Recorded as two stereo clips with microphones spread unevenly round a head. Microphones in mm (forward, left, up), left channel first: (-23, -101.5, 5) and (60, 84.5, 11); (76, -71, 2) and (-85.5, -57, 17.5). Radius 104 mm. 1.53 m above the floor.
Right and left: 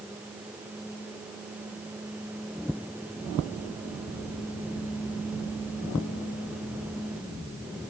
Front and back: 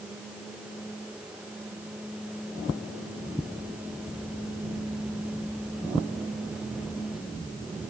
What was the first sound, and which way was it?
Only background noise.